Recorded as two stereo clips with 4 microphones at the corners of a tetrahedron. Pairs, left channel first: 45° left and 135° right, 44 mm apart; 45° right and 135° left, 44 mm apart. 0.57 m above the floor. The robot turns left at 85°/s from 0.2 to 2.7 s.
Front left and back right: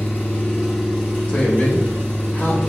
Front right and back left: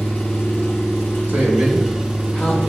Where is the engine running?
5° right, 1.4 m; by 2.7 s 145° left, 1.4 m.